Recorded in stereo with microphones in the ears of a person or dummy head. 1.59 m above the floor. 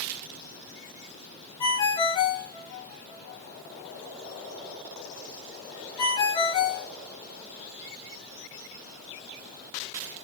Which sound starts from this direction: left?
A ringtone, at 1.6 s.